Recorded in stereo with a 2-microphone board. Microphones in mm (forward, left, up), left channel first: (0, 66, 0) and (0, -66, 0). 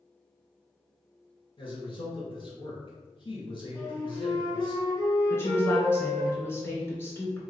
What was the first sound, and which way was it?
A man speaking, 45° left (ahead or behind).